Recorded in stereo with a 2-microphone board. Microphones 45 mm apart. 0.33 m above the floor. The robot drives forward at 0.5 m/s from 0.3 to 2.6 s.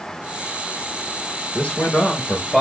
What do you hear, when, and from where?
1.6 s a man speaking: 25° left (ahead or behind), 1.3 m; by 2.6 s 20° left (ahead or behind), 1.5 m